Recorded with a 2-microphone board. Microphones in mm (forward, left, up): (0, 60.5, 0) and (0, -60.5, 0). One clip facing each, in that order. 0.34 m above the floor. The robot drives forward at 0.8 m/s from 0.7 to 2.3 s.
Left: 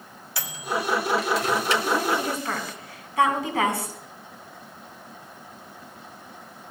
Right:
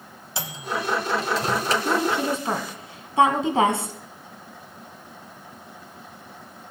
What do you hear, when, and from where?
0.4 s a microwave: 25° right (ahead or behind), 1.4 m; by 1.8 s 40° right (ahead or behind), 0.9 m
1.9 s a woman speaking: 25° right (ahead or behind), 3 m; by 4.0 s 30° right (ahead or behind), 3 m